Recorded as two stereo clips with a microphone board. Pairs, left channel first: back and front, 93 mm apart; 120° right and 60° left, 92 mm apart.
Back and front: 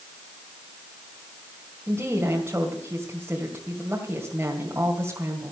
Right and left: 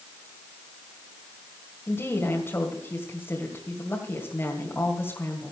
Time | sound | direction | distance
1.9 | a woman speaking | 60° right | 2 m